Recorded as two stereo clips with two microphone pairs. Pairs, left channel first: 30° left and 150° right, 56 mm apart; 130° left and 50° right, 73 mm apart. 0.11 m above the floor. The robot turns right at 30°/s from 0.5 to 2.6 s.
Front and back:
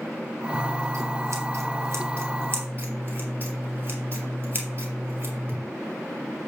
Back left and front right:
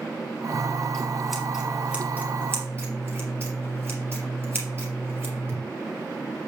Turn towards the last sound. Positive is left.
turn(degrees=-105)